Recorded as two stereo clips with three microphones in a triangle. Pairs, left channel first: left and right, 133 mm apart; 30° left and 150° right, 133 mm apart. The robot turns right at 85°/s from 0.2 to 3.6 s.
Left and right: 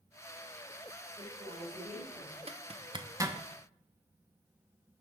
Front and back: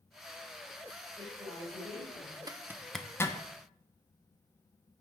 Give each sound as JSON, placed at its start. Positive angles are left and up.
{"t": 1.2, "sound": "a woman speaking", "azimuth_deg": -110, "distance_m": 3.5}
{"t": 2.5, "sound": "a zipper", "azimuth_deg": -100, "distance_m": 0.7}